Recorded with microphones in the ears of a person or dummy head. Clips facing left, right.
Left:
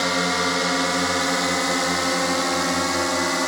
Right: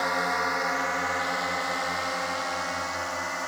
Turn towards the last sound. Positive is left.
turn(degrees=75)  # may be behind; listen again after turning